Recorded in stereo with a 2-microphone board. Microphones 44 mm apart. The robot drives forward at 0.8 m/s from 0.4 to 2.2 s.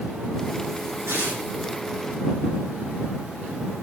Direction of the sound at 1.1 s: 85° right.